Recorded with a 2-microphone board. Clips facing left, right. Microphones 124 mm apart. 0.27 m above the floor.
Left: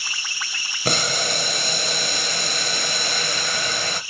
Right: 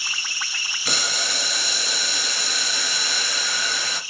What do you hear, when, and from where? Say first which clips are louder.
0.8 s boiling: left 6 dB; 55° left (ahead or behind), 0.6 m